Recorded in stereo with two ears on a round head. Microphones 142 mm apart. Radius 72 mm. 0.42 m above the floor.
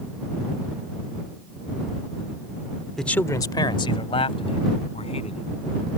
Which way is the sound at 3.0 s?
Centre (ahead or behind).